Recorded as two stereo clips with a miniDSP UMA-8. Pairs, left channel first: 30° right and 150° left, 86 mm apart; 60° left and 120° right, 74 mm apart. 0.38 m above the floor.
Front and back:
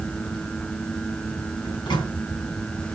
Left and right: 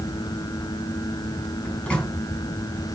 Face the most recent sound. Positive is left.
turn(degrees=-15)